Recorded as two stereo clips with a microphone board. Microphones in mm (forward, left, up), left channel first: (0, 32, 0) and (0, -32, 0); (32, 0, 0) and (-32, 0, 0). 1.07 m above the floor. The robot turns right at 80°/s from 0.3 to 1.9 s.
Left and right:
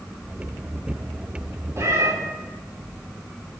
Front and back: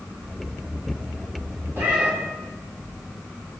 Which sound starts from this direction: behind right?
A cat meowing, at 1.8 s.